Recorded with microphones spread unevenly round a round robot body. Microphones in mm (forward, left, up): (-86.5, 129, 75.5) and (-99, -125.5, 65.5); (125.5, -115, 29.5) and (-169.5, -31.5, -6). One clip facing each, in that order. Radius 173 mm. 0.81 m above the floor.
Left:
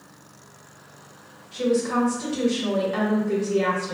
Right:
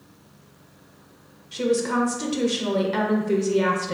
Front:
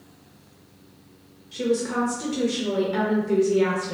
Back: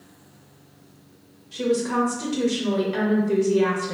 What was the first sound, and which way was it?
A woman speaking, 120° right.